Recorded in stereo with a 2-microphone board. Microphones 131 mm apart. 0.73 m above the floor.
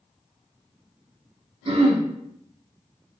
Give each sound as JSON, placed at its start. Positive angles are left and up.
{"t": 1.6, "sound": "throat clearing", "side_deg": -45, "distance_m": 0.7}